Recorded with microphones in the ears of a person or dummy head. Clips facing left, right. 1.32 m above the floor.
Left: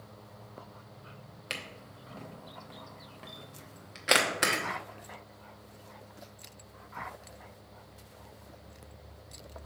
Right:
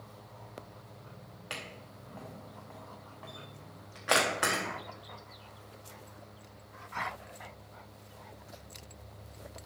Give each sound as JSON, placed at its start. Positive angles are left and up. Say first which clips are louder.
{"t": 1.5, "sound": "a camera shutter", "louder": "left 1 dB", "side_deg": 25, "distance_m": 0.8}